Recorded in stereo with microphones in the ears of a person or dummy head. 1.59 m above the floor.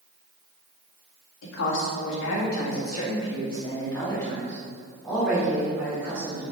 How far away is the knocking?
No knocking in this recording.